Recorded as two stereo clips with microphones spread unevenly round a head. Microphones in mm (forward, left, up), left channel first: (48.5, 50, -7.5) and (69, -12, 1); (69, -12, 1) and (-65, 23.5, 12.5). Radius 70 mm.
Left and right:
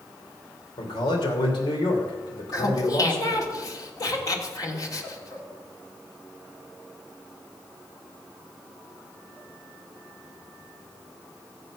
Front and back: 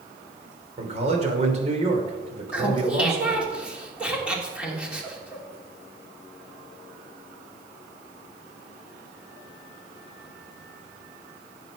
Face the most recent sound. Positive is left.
turn(degrees=80)